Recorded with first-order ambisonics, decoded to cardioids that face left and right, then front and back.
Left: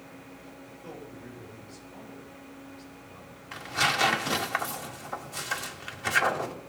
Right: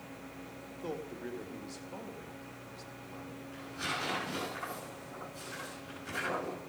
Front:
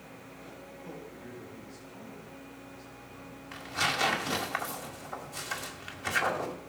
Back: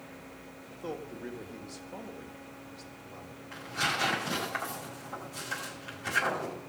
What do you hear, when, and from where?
0.7 s a man speaking: 145° right, 2 m
3.5 s tearing paper: 70° left, 1.9 m